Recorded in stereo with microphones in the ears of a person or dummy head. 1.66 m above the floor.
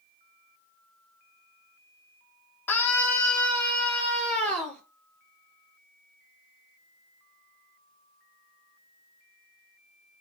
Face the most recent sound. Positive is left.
turn(degrees=5)  # may be behind; listen again after turning